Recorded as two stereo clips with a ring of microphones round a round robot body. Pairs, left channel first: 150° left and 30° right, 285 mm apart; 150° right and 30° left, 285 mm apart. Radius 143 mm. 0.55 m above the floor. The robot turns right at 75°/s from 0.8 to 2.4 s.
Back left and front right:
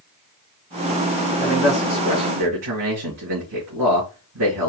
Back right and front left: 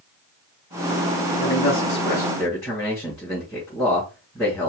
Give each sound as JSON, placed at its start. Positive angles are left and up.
{"t": 1.4, "sound": "a man speaking", "azimuth_deg": -140, "distance_m": 3.5}